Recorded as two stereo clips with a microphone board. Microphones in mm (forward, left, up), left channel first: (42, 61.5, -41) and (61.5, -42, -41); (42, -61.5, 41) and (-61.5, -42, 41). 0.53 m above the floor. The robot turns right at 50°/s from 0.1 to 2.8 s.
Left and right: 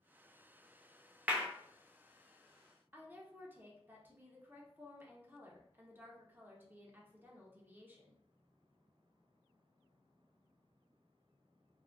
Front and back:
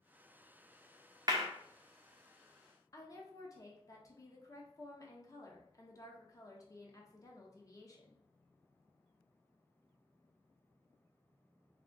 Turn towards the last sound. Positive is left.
turn(degrees=-25)